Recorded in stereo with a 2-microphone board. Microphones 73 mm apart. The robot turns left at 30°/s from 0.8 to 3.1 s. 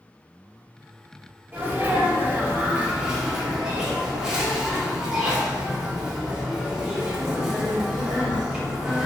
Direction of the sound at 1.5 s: 115° right.